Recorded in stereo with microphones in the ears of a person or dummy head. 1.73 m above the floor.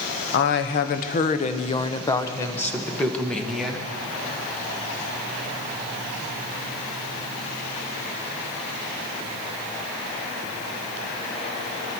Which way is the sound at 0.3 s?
60° left (ahead or behind).